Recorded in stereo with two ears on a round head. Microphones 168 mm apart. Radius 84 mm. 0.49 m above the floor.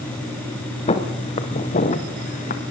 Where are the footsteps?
35° left (ahead or behind), 4.5 m; by 2.6 s 45° left (ahead or behind), 3.5 m.